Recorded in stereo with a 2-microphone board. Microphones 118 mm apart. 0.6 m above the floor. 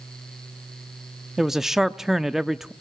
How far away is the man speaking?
About 0.7 m.